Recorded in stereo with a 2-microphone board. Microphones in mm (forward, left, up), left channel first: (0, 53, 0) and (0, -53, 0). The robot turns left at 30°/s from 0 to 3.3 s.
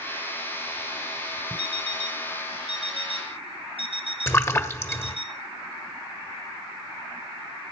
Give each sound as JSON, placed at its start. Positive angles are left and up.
{"t": 1.6, "sound": "an alarm clock", "azimuth_deg": -70, "distance_m": 4.0}
{"t": 4.3, "sound": "a splash", "side_deg": 25, "distance_m": 1.3}